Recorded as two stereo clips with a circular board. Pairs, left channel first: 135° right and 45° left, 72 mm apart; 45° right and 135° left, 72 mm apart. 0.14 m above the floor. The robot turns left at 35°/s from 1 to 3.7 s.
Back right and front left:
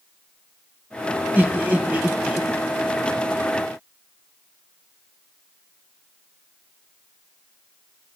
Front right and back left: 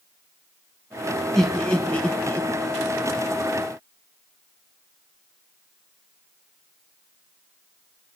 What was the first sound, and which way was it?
Laughter, 30° left.